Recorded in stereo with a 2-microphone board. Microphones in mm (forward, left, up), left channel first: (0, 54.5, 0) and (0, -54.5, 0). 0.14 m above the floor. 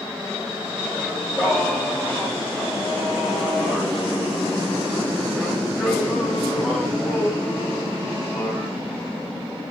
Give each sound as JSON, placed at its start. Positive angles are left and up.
{"t": 1.0, "sound": "singing", "side_deg": -5, "distance_m": 9.5}